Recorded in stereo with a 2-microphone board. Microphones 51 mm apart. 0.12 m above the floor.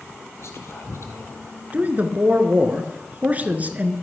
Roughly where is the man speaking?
Right.